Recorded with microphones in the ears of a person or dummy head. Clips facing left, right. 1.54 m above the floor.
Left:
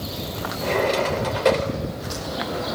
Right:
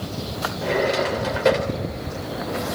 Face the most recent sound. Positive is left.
turn(degrees=-5)  # may be behind; listen again after turning